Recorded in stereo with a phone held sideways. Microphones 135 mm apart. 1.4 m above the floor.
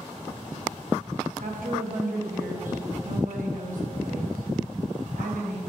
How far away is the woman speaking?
About 1.1 m.